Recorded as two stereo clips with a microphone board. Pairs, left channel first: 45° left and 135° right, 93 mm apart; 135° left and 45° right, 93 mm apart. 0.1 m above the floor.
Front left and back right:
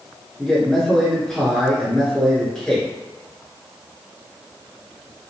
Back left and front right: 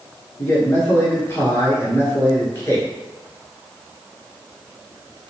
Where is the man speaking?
120° left, 1.3 m.